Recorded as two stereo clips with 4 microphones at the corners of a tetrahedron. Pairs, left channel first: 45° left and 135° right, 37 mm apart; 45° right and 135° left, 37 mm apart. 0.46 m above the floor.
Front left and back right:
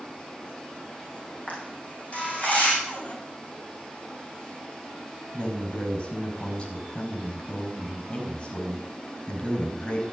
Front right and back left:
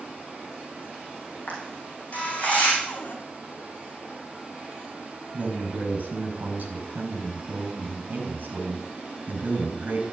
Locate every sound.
1.5 s a camera shutter: straight ahead, 5.5 m
2.8 s a cupboard door: 5° right, 2.5 m
5.3 s a man speaking: 105° left, 4.5 m